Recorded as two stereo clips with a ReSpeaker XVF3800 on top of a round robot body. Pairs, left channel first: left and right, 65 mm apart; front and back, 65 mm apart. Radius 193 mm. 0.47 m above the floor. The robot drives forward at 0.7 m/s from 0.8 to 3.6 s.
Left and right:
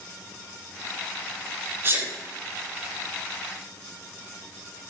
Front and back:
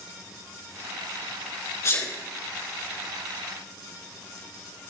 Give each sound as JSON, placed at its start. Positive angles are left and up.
{"t": 1.8, "sound": "a sneeze", "azimuth_deg": -40, "distance_m": 5.5}